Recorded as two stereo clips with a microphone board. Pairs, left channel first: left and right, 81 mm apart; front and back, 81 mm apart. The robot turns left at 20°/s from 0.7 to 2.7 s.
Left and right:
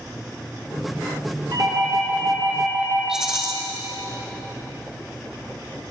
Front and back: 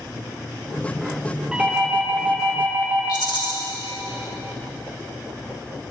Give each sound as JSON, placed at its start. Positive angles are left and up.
{"t": 1.5, "sound": "a doorbell", "azimuth_deg": -100, "distance_m": 2.5}
{"t": 3.1, "sound": "a rattle", "azimuth_deg": -5, "distance_m": 1.9}